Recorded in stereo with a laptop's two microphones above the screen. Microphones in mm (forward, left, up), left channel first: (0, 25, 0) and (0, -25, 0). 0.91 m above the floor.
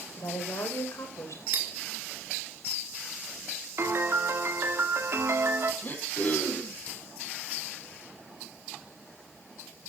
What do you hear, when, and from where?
0.2 s a woman speaking: 80° left, 4.5 m
1.5 s cutlery clinking: 45° right (ahead or behind), 2.5 m
3.8 s a piano: 50° right (ahead or behind), 2.5 m
5.8 s throat clearing: 35° left (ahead or behind), 6.5 m